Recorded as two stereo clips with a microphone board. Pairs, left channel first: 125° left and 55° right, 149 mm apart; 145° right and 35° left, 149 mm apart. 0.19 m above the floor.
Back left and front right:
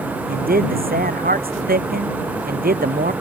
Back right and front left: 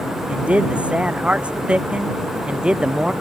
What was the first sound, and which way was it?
A man speaking, 50° right.